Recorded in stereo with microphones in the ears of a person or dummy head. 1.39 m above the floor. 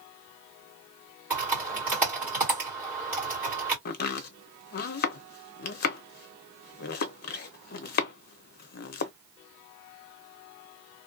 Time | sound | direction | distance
1.3 | typing on a keyboard | 10° right (ahead or behind) | 1.4 m
3.9 | chopping | 50° left (ahead or behind) | 0.5 m